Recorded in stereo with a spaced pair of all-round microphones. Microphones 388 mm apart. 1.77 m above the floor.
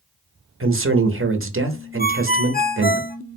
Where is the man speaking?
35° right (ahead or behind), 0.7 m.